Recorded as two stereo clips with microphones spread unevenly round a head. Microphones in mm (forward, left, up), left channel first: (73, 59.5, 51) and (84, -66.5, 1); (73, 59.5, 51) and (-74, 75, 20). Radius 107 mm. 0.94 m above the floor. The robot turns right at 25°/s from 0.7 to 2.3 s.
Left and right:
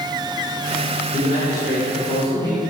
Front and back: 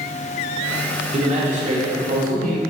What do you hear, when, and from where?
1.1 s a man speaking: 135° left, 1.2 m; by 2.6 s 165° left, 1.2 m